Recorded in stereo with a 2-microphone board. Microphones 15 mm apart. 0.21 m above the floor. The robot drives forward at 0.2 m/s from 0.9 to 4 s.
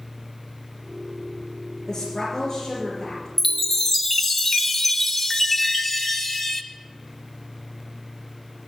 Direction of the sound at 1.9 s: 25° left (ahead or behind).